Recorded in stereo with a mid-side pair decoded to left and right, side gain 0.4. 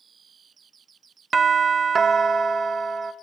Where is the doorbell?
40° right, 0.5 m.